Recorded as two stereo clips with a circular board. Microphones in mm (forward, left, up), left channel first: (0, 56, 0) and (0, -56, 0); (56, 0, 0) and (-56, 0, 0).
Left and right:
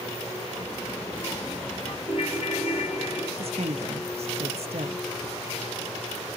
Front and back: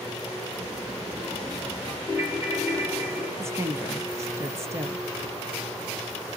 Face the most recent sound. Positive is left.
turn(degrees=-115)